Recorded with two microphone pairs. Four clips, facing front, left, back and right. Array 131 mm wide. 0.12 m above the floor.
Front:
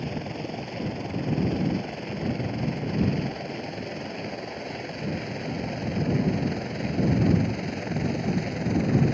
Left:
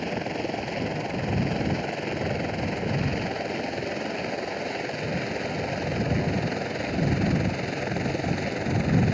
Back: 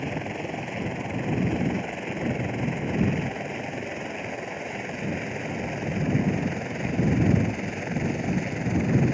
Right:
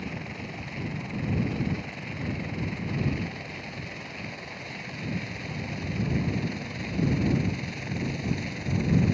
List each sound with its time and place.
0.0 s a helicopter: 100° left; by 9.1 s 90° left